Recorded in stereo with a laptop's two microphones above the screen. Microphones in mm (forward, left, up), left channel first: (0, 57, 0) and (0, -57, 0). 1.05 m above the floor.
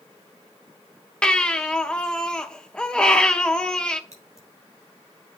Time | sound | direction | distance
1.2 | a baby crying | 10° left (ahead or behind) | 0.6 m
4.1 | scissors | 80° right | 4 m